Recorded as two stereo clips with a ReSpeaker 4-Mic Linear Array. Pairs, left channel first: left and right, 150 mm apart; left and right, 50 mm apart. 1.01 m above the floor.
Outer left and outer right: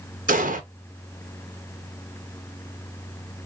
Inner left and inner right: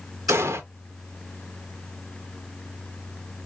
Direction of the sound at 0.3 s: 65° right (ahead or behind).